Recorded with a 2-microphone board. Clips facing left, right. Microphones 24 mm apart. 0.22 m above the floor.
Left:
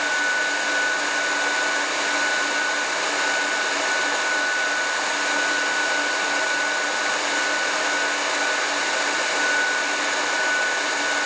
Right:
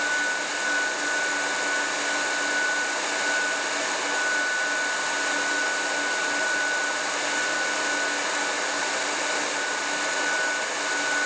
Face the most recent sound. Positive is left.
No sound to turn to.